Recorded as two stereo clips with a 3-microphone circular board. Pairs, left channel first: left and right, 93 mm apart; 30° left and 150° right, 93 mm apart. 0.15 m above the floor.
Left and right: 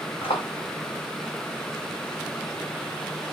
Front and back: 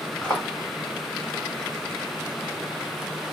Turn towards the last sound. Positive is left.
turn(degrees=110)